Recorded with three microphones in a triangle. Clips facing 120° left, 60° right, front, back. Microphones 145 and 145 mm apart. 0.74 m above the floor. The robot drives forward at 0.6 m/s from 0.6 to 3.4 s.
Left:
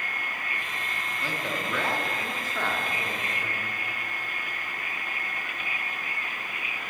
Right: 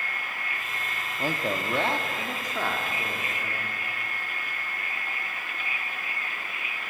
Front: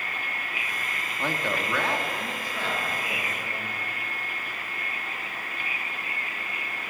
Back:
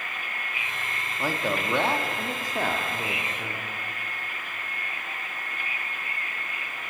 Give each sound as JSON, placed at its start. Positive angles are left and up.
{"t": 1.2, "sound": "a man speaking", "azimuth_deg": -95, "distance_m": 1.0}